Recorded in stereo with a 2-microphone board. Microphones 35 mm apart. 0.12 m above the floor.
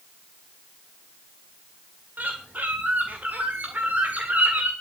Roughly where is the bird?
Right.